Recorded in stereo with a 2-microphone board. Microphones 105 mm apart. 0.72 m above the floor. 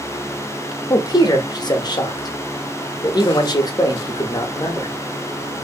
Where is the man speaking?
40° left (ahead or behind), 0.6 m.